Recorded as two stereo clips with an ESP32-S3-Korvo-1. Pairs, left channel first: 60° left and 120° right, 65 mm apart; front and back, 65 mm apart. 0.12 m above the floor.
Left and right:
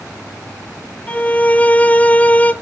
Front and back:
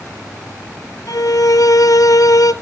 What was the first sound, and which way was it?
A violin, 5° right.